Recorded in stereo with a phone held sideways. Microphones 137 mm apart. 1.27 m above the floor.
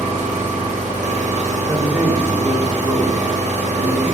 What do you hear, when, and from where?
0.0 s an engine running: 55° right (ahead or behind), 0.9 m
1.7 s a man speaking: 10° right (ahead or behind), 0.6 m